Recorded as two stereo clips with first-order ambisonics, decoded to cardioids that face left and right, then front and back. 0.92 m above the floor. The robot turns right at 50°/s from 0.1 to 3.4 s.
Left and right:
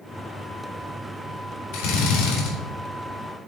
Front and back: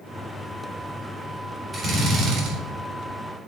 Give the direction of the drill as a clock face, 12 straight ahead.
9 o'clock.